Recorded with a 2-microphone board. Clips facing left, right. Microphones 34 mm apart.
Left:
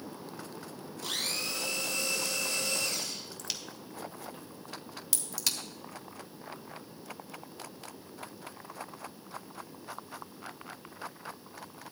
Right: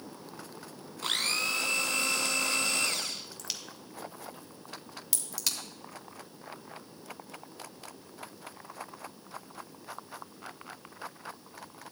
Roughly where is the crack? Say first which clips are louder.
Left 1 dB; centre.